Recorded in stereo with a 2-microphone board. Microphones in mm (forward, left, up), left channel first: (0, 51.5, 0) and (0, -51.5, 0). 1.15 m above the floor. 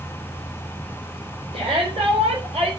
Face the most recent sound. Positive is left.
turn(degrees=-75)  # may be behind; listen again after turning